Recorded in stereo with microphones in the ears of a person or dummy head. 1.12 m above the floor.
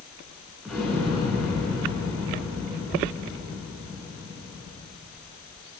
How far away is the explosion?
About 8.5 m.